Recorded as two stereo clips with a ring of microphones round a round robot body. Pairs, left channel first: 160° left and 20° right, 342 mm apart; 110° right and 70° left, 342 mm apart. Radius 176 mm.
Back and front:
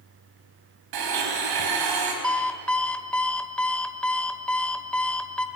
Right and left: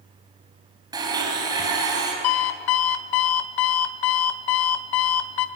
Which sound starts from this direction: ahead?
A blender, at 0.9 s.